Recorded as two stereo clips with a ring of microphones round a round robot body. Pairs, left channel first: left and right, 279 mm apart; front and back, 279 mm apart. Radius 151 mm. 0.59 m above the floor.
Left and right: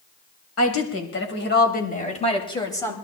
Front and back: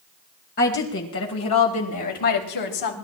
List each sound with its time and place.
0.6 s a woman speaking: 60° left, 4 m; by 2.9 s 10° left, 4 m